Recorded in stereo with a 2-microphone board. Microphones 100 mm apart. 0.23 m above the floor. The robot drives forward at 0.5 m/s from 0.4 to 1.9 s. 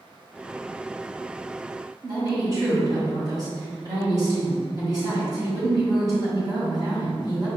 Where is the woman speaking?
40° right (ahead or behind), 1.9 m.